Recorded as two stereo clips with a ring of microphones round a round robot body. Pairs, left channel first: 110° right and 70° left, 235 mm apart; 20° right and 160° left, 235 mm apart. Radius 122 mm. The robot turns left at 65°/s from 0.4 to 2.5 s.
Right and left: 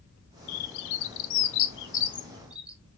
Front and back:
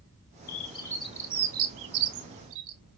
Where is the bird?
75° right, 0.5 m; by 2.8 s 150° left, 0.5 m.